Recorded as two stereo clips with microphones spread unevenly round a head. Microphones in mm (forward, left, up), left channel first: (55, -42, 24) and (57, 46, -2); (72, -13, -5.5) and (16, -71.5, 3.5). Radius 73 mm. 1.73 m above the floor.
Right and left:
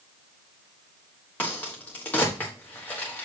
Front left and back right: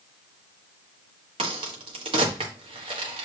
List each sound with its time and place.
1.4 s a crack: 170° right, 1.3 m